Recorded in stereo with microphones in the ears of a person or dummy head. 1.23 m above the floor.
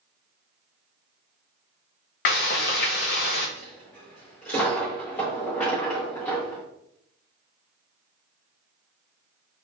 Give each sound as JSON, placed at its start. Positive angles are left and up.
{"t": 2.2, "sound": "frying", "side_deg": 50, "distance_m": 0.6}
{"t": 3.6, "sound": "a dropped coin", "side_deg": 5, "distance_m": 0.6}